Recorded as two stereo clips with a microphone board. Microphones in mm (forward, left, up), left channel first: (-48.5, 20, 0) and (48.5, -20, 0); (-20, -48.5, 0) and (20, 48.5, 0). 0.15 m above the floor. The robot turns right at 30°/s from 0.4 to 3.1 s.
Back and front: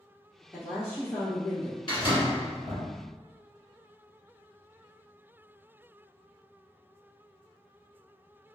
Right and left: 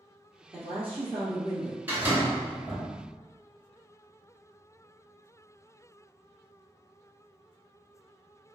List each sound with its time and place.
0.5 s a woman speaking: 80° left, 1.9 m; by 1.8 s 115° left, 1.9 m
1.9 s a door slam: 130° left, 1.7 m; by 2.9 s 160° left, 1.7 m